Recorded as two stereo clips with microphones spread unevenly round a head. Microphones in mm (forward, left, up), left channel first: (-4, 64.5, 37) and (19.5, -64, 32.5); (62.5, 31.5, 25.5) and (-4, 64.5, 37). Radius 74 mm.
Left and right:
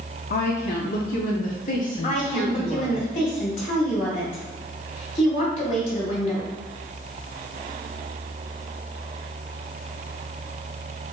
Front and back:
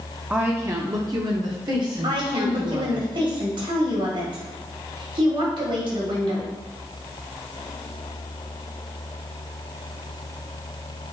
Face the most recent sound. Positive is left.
turn(degrees=140)